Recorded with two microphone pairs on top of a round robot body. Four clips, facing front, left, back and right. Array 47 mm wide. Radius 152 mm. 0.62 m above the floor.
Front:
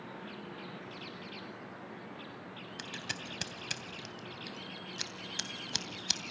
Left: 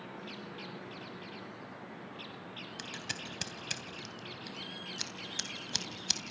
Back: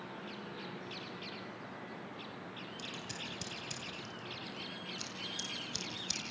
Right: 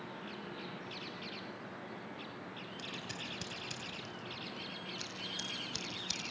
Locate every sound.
2.8 s scissors: 40° left, 2.5 m